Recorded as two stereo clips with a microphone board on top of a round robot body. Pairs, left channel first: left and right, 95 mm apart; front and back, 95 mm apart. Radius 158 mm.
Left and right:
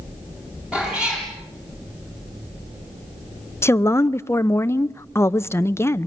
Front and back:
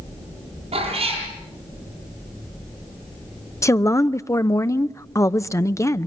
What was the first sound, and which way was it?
A cat meowing, 170° right.